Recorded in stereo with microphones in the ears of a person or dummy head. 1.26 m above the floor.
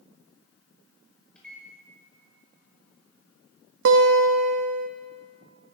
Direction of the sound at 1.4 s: 5° left (ahead or behind).